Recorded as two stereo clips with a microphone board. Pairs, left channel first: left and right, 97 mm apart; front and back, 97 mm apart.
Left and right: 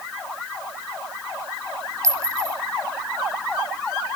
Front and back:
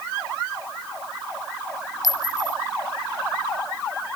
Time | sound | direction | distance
2.0 | a clink | 35° right | 2 m